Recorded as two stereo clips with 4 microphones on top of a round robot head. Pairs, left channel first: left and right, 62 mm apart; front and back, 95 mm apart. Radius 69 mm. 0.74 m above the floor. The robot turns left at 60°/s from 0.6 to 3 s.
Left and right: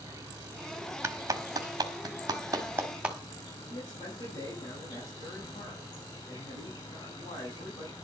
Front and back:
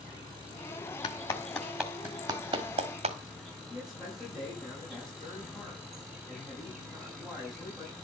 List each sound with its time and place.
0.0 s an insect: 125° right, 8 m; by 8.1 s 90° left, 8 m
1.0 s a clap: 50° right, 1.7 m; by 3.2 s 170° right, 1.7 m
3.7 s a man speaking: 90° left, 7 m